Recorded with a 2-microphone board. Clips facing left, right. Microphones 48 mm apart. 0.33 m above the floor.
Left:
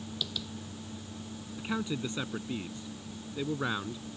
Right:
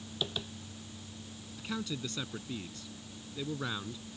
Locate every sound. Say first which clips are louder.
0.2 s tapping: right 3 dB; 30° right (ahead or behind)
1.6 s a man speaking: left 4 dB; 20° left (ahead or behind)